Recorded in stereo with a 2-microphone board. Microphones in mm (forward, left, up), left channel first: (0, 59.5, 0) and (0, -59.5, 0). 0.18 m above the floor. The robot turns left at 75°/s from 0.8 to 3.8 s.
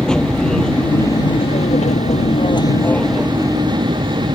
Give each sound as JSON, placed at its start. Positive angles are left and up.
{"t": 0.0, "sound": "an aircraft", "azimuth_deg": 175}